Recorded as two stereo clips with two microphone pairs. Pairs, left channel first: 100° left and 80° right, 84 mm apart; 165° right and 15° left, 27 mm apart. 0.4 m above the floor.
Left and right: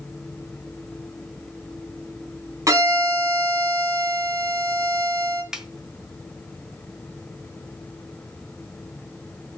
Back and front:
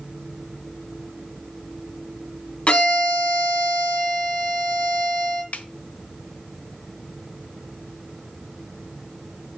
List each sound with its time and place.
2.7 s a violin: 130° right, 2.0 m
5.5 s a snare drum: 165° right, 1.1 m